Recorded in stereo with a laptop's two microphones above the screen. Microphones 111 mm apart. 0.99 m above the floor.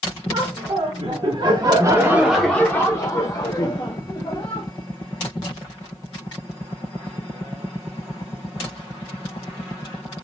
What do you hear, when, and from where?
0.3 s laughter: 55° right (ahead or behind), 1.3 m; by 4.7 s 45° left (ahead or behind), 1.6 m